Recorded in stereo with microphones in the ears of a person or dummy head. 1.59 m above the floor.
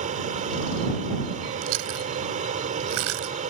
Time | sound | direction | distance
0.0 | an aircraft | 40° right (ahead or behind) | ?
1.6 | chewing | 70° right (ahead or behind) | ?